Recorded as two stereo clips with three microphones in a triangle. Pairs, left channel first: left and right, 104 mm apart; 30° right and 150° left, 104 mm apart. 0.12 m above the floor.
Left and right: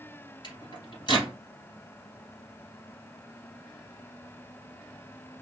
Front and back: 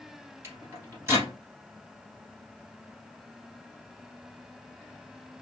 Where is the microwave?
95° left, 1.8 m.